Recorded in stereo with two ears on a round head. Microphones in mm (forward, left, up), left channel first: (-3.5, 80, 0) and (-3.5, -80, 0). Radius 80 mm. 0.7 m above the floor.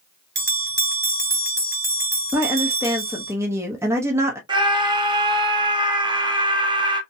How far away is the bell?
About 2.5 m.